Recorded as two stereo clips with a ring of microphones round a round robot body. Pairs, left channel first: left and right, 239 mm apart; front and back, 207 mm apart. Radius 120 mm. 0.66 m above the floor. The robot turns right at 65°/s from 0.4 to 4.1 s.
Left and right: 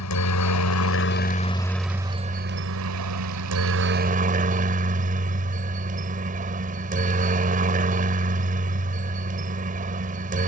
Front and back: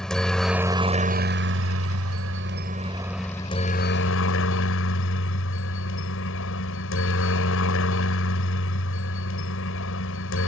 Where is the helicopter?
85° left; by 10.5 s 30° right.